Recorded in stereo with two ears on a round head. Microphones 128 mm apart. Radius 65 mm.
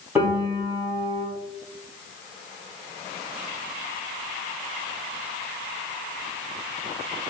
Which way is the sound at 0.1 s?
15° right (ahead or behind).